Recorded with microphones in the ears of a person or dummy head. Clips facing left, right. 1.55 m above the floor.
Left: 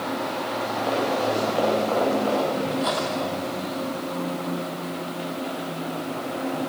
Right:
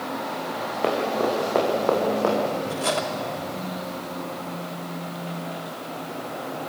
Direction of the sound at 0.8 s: 70° right (ahead or behind).